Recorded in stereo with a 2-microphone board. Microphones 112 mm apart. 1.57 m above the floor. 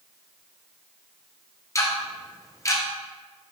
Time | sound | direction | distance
1.8 | ticking | 30° left (ahead or behind) | 0.6 m